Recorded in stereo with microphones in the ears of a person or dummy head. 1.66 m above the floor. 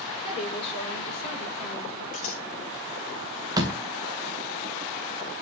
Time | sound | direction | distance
0.2 | a woman speaking | 30° left (ahead or behind) | 5 m
2.1 | scissors | 35° left (ahead or behind) | 1.6 m
3.6 | a door slam | 20° right (ahead or behind) | 1.7 m